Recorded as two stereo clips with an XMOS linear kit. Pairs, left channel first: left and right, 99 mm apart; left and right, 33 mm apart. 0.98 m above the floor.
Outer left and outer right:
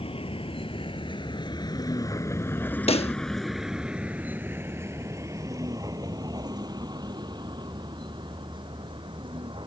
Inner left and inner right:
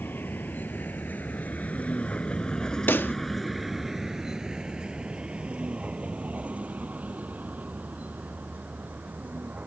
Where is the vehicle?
70° left (ahead or behind); by 9.7 s 55° right (ahead or behind).